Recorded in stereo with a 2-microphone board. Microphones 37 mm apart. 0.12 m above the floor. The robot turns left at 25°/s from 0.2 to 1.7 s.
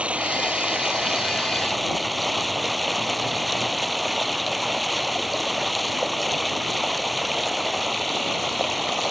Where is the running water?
145° right; by 9.1 s straight behind.